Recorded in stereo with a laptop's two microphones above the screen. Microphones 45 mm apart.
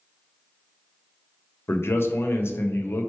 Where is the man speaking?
60° left (ahead or behind), 0.6 m.